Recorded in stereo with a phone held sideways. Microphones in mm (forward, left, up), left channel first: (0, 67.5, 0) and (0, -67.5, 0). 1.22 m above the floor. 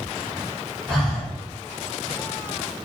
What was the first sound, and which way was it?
Breathing, 5° left (ahead or behind).